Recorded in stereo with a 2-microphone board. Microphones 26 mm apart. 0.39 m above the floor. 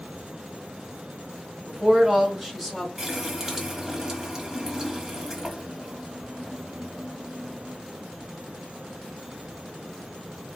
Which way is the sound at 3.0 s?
20° right (ahead or behind).